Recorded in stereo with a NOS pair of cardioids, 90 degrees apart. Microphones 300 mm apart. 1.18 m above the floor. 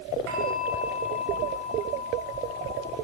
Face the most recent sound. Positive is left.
turn(degrees=-65)